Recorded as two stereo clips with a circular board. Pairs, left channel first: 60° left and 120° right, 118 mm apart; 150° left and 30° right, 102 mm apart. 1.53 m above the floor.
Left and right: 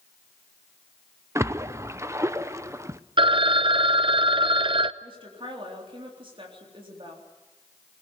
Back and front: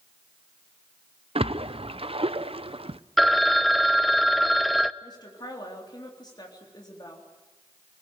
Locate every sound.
1.4 s a splash: 55° right, 0.7 m
3.2 s a phone ringing: 120° right, 0.6 m
5.0 s a woman speaking: 165° right, 3.5 m